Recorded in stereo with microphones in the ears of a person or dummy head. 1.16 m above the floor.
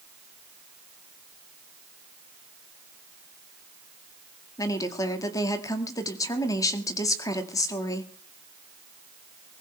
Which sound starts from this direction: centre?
A woman speaking, at 4.6 s.